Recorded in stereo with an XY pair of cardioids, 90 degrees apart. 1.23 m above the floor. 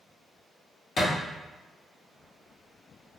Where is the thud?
65° left, 1.5 m.